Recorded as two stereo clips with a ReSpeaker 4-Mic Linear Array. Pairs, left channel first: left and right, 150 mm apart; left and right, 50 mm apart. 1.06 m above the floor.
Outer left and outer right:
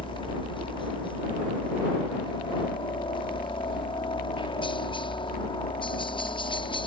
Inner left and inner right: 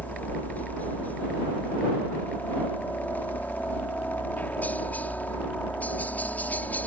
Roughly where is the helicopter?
Left.